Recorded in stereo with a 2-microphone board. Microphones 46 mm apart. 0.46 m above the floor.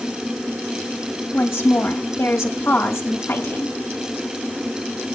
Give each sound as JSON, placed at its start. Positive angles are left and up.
{"t": 1.3, "sound": "a woman speaking", "side_deg": 70, "distance_m": 2.0}